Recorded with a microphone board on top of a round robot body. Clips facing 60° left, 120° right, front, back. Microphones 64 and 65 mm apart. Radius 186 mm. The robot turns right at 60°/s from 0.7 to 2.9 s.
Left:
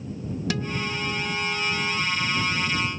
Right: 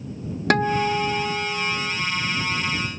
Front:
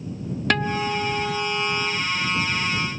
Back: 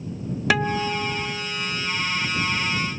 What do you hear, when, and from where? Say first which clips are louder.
0.5 s a guitar: right 11 dB, back 1 dB; 95° right; by 2.0 s 20° right